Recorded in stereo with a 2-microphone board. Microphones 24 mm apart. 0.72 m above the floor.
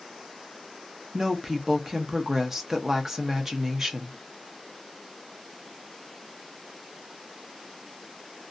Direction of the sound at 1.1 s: 15° right (ahead or behind).